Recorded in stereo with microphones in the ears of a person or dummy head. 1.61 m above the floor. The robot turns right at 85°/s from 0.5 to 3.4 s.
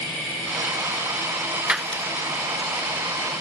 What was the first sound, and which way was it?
Breaking glass, 10° right (ahead or behind).